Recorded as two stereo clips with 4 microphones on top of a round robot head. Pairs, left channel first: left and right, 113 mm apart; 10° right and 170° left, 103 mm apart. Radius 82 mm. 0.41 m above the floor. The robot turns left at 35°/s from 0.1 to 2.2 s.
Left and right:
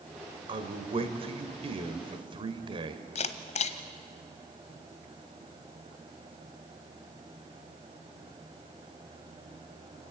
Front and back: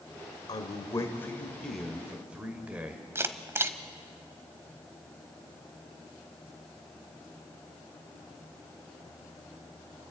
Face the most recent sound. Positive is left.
turn(degrees=105)